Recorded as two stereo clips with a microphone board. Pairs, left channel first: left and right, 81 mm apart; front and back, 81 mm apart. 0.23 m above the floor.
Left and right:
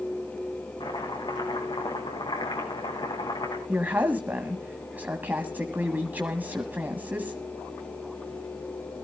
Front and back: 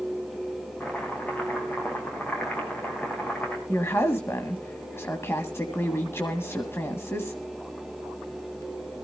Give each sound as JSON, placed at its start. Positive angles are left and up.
{"t": 0.8, "sound": "chopping", "azimuth_deg": 70, "distance_m": 4.0}
{"t": 3.7, "sound": "a woman speaking", "azimuth_deg": -35, "distance_m": 1.7}